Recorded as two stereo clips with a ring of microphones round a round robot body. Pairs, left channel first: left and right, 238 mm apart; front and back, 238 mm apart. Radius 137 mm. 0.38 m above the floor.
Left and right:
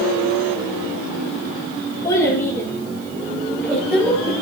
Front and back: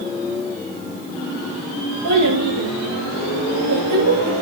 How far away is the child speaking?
About 5.5 m.